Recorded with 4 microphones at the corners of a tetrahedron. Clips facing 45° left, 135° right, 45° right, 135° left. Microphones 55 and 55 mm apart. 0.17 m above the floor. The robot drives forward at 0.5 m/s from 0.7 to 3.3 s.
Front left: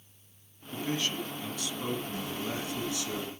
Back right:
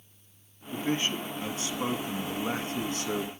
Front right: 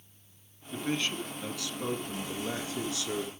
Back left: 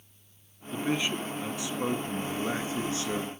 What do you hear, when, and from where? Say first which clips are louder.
0.7 s a man speaking: back right 3 dB, back left 3 dB; 160° right, 1.3 m; by 3.3 s 175° right, 2 m